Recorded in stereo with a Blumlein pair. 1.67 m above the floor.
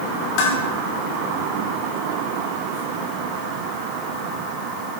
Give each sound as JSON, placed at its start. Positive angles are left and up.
{"t": 0.4, "sound": "dishes clattering", "azimuth_deg": 45, "distance_m": 3.0}